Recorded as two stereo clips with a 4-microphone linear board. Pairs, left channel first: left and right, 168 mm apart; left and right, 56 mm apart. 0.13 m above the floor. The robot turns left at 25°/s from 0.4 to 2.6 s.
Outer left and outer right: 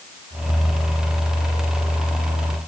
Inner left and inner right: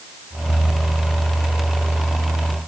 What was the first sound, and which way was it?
Only background noise.